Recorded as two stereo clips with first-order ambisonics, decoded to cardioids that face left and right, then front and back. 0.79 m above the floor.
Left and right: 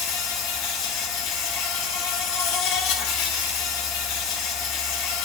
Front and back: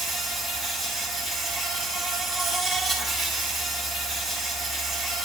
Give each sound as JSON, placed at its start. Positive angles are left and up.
{"t": 0.0, "sound": "an insect", "azimuth_deg": 85, "distance_m": 1.3}